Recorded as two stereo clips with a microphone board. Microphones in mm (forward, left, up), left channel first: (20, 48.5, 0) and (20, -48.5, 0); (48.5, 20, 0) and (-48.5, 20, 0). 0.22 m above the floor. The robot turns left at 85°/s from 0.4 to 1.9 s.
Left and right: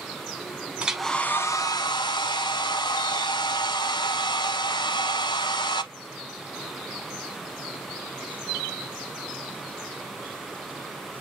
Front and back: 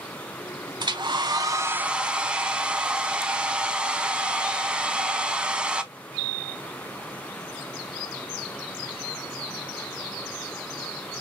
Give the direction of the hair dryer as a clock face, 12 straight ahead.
5 o'clock.